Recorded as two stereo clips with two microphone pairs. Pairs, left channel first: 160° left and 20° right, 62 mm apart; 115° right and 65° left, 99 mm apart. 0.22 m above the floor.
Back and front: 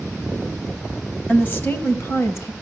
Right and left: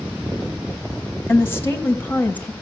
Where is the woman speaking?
160° right, 1.1 m; by 2.5 s 175° left, 1.8 m.